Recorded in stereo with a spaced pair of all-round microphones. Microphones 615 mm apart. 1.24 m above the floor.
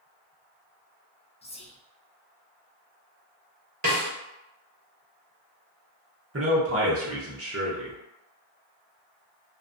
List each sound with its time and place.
1.4 s whispering: 10° left (ahead or behind), 0.6 m
3.8 s a snare drum: 25° right (ahead or behind), 0.8 m
6.3 s a man speaking: 25° right (ahead or behind), 0.6 m